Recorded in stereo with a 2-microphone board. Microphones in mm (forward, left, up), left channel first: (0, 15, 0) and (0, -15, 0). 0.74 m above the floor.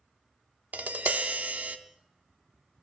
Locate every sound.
0.7 s tapping: 65° right (ahead or behind), 0.7 m